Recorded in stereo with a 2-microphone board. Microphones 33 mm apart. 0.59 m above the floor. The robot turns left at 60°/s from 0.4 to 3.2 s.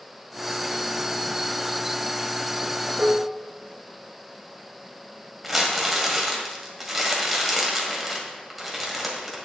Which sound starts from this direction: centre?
Crumpling, at 5.4 s.